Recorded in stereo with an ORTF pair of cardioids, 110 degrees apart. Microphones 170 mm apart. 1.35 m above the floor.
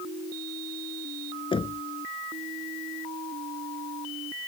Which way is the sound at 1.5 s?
30° left.